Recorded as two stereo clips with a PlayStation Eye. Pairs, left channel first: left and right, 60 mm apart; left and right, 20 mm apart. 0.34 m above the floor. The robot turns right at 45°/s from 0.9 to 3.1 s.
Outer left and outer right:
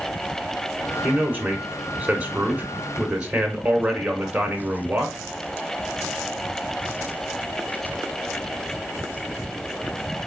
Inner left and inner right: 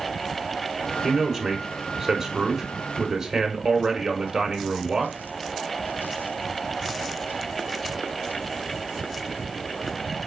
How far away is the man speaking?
About 1.2 m.